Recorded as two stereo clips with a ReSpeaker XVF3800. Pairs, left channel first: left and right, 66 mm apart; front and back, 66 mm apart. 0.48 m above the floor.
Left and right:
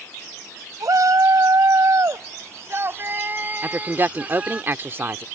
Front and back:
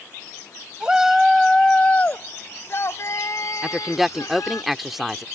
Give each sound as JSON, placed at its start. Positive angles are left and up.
{"t": 0.8, "sound": "a shout", "azimuth_deg": -105}
{"t": 3.6, "sound": "a woman speaking", "azimuth_deg": -95}